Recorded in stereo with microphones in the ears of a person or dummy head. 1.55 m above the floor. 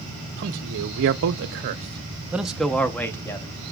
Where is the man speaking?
50° right (ahead or behind), 1.1 m; by 3.5 s 15° left (ahead or behind), 1.4 m.